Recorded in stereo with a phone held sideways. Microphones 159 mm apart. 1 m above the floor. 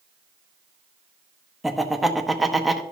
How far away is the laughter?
About 1.0 m.